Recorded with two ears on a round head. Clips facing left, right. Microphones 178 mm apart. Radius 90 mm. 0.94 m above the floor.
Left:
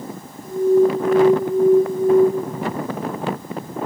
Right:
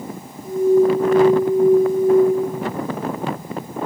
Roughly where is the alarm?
Left.